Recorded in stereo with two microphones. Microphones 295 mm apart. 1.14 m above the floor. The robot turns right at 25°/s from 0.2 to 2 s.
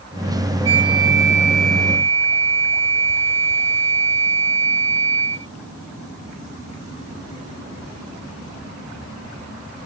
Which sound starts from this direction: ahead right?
A flute, at 0.7 s.